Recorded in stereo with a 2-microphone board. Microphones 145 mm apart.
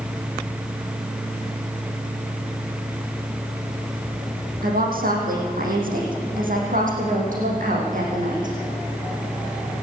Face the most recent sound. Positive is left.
turn(degrees=-60)  # may be behind; listen again after turning